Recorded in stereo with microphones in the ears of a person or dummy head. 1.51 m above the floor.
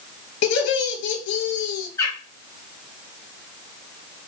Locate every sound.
0.4 s laughter: 65° left (ahead or behind), 0.9 m
2.0 s a bird: 15° left (ahead or behind), 0.8 m